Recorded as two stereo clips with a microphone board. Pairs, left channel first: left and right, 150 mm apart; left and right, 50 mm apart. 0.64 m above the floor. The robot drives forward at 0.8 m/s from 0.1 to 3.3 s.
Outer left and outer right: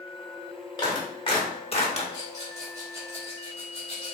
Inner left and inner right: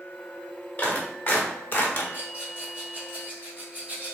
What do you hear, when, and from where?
0.8 s a clap: 30° left (ahead or behind), 1.9 m; by 2.0 s 45° left (ahead or behind), 1.2 m
2.1 s a rattle: 30° right (ahead or behind), 2.5 m; by 4.1 s 25° right (ahead or behind), 3.5 m